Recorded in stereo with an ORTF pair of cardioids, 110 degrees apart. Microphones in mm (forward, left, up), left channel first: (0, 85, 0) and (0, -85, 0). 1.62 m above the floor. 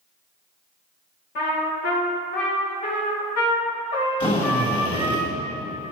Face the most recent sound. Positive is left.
turn(degrees=30)